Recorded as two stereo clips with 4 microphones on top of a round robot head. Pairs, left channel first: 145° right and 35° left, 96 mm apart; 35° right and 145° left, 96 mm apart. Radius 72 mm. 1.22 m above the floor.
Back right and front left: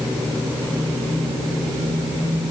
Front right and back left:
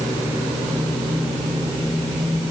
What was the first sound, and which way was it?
Only background noise.